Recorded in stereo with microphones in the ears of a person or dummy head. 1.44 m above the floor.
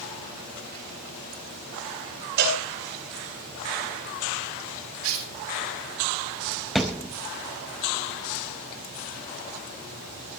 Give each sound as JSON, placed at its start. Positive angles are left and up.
{"t": 2.4, "sound": "a cowbell", "side_deg": -55, "distance_m": 7.0}
{"t": 5.0, "sound": "tearing paper", "side_deg": -90, "distance_m": 7.5}
{"t": 6.8, "sound": "a thud", "side_deg": 0, "distance_m": 0.8}